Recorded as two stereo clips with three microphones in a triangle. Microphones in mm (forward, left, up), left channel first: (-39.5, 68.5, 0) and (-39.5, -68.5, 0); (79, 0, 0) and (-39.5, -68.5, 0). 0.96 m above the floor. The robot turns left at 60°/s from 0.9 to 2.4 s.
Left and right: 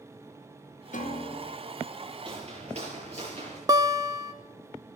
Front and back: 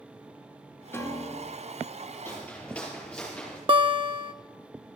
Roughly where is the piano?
Left.